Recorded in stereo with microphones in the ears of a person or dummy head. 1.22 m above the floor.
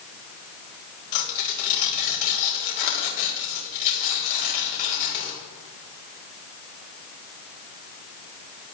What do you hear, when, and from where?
1.1 s tearing paper: 40° left (ahead or behind), 4.5 m